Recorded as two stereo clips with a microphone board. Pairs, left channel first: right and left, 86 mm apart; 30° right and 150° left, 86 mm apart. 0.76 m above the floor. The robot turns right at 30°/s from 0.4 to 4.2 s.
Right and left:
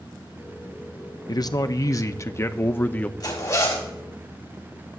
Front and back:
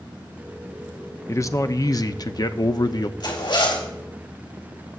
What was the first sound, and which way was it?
A man speaking, 75° right.